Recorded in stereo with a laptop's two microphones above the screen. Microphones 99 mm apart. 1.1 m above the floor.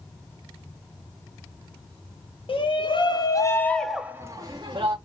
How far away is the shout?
About 1.1 m.